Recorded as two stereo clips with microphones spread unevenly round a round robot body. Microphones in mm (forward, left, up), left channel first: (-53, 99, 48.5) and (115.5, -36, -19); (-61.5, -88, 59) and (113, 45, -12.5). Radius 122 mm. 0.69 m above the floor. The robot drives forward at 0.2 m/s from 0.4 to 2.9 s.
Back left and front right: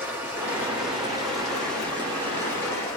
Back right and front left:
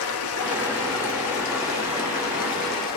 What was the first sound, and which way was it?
Running water, 120° right.